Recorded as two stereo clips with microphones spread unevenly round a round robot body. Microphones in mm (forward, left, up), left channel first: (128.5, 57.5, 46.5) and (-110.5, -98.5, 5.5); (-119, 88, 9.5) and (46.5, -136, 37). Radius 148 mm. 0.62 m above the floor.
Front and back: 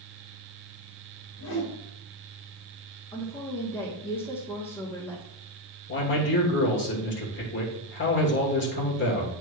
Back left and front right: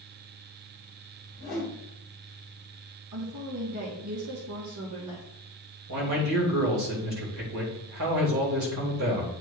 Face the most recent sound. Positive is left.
turn(degrees=-20)